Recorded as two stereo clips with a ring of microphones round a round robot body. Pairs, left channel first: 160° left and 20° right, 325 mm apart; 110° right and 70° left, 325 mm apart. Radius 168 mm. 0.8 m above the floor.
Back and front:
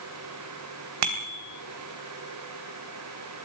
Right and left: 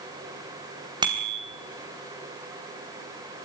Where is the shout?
I don't hear a shout.